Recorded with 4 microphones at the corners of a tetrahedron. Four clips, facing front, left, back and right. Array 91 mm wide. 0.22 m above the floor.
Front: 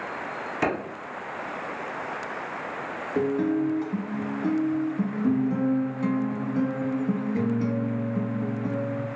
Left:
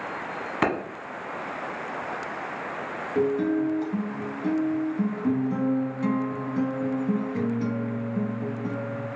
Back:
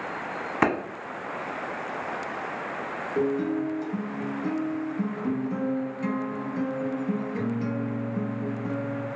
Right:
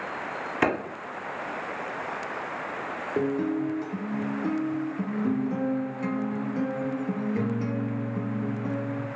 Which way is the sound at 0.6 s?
170° left.